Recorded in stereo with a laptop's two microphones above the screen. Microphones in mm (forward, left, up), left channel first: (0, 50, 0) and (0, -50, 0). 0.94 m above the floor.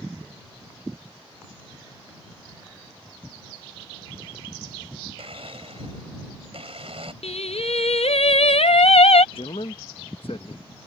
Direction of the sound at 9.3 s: 65° left (ahead or behind).